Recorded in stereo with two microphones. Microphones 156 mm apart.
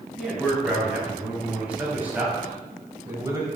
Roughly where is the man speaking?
Centre.